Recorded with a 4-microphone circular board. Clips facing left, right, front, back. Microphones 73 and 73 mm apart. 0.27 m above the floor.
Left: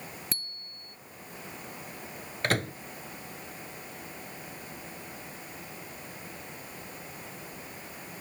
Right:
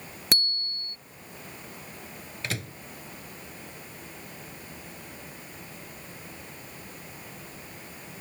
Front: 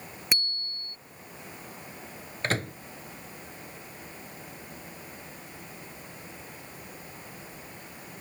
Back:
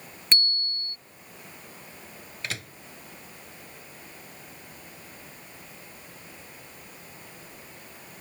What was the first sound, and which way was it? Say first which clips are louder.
A bicycle bell: right 11 dB, back 5 dB; 75° right.